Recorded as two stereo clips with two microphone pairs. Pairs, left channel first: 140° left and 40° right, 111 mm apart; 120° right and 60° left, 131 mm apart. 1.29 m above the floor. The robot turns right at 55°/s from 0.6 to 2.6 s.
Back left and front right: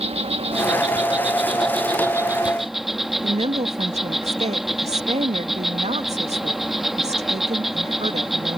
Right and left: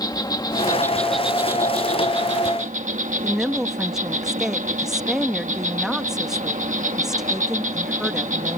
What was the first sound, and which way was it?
An insect, 65° right.